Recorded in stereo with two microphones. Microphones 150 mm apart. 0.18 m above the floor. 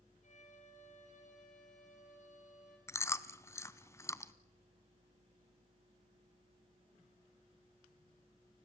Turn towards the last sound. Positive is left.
turn(degrees=20)  # may be behind; listen again after turning